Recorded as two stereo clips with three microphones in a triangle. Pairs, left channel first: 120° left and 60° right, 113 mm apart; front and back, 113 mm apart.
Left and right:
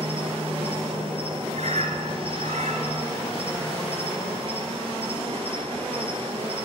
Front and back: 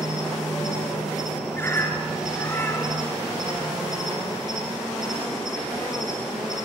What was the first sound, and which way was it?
An insect, 95° right.